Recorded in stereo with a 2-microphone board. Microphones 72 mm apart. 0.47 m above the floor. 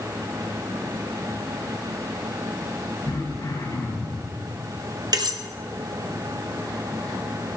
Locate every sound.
3.0 s throat clearing: 75° left (ahead or behind), 2.5 m
5.1 s cutlery clinking: 70° right (ahead or behind), 1.1 m